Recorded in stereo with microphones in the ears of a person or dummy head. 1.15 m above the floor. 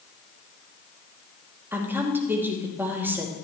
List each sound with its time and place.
1.7 s a woman speaking: 15° right (ahead or behind), 2.5 m